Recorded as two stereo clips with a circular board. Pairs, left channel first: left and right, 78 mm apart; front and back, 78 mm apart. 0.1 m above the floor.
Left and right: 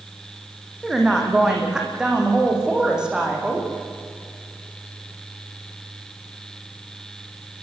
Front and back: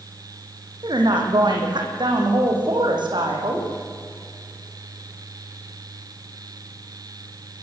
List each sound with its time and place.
0.8 s a woman speaking: 170° right, 6 m